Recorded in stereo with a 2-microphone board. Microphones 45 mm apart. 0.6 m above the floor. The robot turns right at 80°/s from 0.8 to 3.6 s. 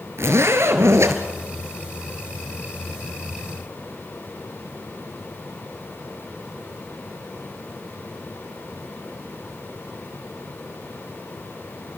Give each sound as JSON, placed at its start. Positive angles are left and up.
{"t": 0.2, "sound": "a zipper", "azimuth_deg": -110, "distance_m": 2.0}